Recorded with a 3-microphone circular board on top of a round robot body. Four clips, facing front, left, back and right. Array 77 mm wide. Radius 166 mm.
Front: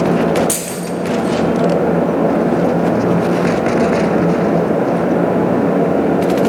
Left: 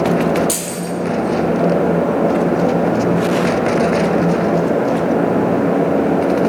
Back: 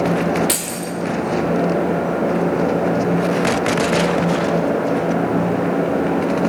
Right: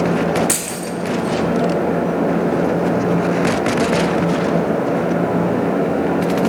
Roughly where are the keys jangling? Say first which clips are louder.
Left 2 dB, front 3 dB; behind right.